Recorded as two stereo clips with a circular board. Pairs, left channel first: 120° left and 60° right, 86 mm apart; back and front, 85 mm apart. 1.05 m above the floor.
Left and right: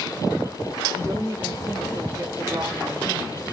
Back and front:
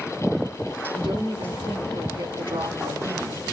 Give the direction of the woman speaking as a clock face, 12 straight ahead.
12 o'clock.